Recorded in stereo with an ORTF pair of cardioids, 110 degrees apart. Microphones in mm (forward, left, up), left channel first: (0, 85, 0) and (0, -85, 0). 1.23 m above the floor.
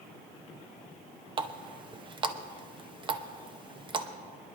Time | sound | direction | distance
1.4 | a running tap | 30° right | 0.9 m